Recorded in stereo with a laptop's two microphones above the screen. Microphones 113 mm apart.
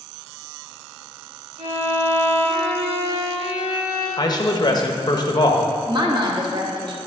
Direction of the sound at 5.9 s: 45° right (ahead or behind).